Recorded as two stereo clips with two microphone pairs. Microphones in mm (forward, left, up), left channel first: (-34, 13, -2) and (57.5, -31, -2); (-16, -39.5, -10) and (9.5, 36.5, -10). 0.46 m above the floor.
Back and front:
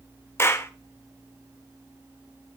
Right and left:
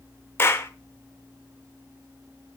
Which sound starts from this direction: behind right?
A clap, at 0.4 s.